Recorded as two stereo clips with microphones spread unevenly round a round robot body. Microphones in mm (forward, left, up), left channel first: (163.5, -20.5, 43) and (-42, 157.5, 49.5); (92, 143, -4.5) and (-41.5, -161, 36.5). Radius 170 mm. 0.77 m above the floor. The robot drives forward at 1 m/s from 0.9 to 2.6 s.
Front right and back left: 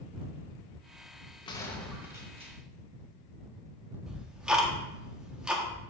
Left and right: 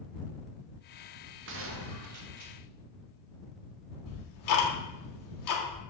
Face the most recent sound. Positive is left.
turn(degrees=50)